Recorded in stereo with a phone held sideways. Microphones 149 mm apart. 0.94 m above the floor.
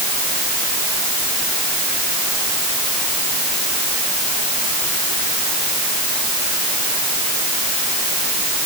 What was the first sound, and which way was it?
Only background noise.